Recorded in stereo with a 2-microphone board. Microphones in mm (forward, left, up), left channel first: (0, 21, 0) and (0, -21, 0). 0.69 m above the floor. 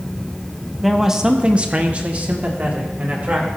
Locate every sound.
0.8 s a man speaking: centre (ahead or behind), 1.0 m; by 3.5 s 45° right (ahead or behind), 2.5 m